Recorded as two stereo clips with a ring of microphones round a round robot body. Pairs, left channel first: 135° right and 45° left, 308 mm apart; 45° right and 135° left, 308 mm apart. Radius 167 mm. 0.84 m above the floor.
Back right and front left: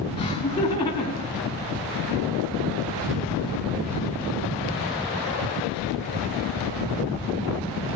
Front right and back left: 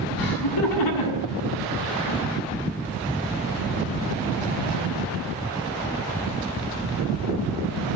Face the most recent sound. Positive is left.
turn(degrees=-50)